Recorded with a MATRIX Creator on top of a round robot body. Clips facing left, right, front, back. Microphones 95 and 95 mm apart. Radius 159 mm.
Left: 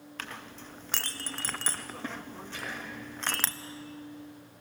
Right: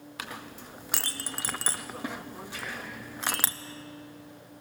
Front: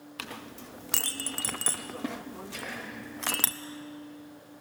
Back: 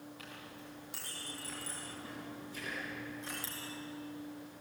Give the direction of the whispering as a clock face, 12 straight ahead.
11 o'clock.